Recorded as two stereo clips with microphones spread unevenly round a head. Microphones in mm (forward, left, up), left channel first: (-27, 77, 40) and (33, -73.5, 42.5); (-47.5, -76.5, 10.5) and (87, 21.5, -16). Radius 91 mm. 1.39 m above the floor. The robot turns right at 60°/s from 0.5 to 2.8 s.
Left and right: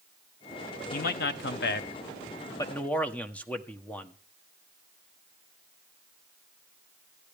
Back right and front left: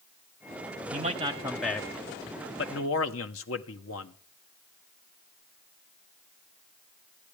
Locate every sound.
0.9 s a man speaking: 80° left, 1.2 m; by 4.2 s 165° right, 1.2 m